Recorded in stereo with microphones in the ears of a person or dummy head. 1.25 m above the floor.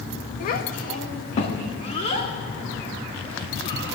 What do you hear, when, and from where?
0.4 s a child speaking: 50° left (ahead or behind), 1.2 m; by 4.0 s 30° left (ahead or behind), 3 m